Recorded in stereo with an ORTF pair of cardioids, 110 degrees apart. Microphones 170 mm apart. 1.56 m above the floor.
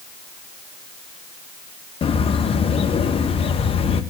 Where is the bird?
35° left, 0.9 m.